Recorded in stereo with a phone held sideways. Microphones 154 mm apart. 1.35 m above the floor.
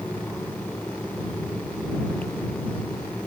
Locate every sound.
0.0 s a fan: 10° left (ahead or behind)